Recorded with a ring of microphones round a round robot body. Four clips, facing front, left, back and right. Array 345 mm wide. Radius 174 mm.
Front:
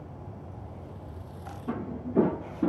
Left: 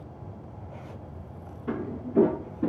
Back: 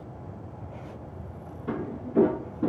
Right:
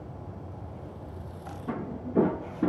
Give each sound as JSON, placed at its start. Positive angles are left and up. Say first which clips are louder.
{"t": 1.7, "sound": "footsteps", "louder": "left 2 dB, back 1 dB", "azimuth_deg": 130, "distance_m": 0.8}